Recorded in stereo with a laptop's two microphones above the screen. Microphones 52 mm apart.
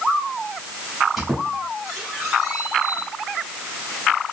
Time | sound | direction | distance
1.2 | a squeak | centre (ahead or behind) | 1.3 m